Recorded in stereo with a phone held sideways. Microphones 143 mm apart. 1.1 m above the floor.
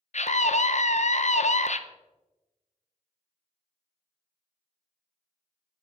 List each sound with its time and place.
0.1 s a scream: 60° left (ahead or behind), 0.6 m